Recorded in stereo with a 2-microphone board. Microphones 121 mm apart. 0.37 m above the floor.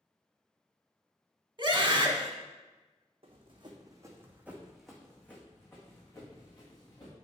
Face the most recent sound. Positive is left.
turn(degrees=30)  # may be behind; listen again after turning